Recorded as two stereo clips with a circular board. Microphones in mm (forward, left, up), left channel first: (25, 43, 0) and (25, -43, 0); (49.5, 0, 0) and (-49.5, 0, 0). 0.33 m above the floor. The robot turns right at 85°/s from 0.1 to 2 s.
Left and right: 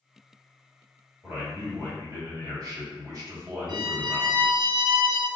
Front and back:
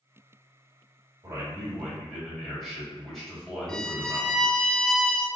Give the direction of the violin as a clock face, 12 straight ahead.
3 o'clock.